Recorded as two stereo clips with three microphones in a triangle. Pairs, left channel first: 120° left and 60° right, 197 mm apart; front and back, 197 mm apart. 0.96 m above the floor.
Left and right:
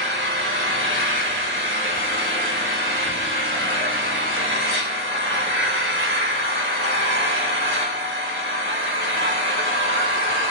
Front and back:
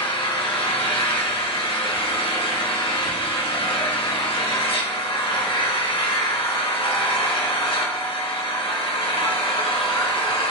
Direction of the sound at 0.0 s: 60° right.